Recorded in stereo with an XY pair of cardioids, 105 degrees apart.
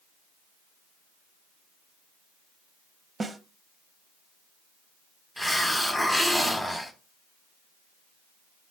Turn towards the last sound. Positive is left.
turn(degrees=5)